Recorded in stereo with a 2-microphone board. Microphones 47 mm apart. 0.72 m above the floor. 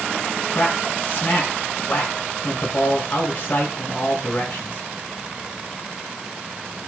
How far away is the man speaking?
About 5.5 m.